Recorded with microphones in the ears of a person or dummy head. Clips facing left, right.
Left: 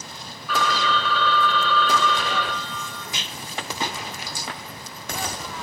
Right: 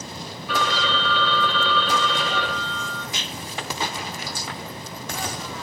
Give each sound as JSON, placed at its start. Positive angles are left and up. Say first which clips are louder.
{"t": 0.5, "sound": "a phone ringing", "louder": "left 1 dB", "side_deg": -25, "distance_m": 0.7}
{"t": 3.1, "sound": "a rattle", "louder": "right 2 dB", "side_deg": 65, "distance_m": 1.0}